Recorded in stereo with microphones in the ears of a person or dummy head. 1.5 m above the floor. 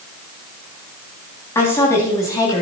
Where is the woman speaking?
15° left (ahead or behind), 3 m; by 2.6 s 20° left (ahead or behind), 3.5 m.